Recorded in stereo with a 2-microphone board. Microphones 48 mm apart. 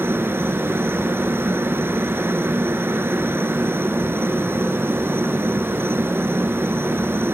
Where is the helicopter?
50° right (ahead or behind).